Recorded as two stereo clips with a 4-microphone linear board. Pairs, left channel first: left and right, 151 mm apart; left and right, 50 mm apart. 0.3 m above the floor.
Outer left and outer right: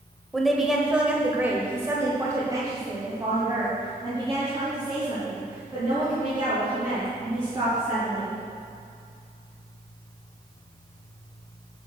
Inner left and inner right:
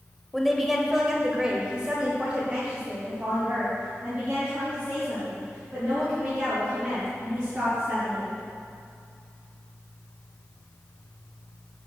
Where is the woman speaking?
Centre (ahead or behind), 1.4 m; by 8.3 s 25° right (ahead or behind), 5.5 m.